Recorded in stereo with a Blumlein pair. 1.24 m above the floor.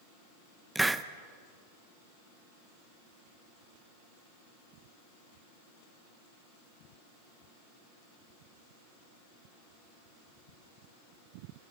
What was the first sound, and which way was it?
A hiss, 5° right.